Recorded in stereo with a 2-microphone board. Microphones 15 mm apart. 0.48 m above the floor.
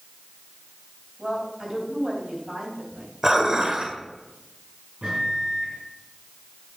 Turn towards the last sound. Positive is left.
turn(degrees=-60)  # may be behind; listen again after turning